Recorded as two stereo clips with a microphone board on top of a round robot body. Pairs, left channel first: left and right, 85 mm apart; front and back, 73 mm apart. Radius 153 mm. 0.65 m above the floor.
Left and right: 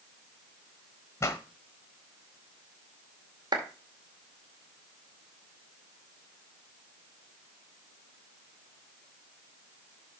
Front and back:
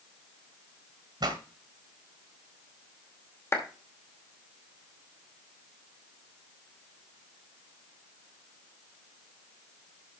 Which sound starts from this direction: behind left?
A pop, at 1.2 s.